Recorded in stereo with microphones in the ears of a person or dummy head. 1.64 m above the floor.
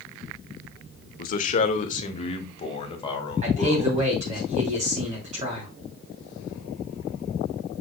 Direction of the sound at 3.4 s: 40° right (ahead or behind).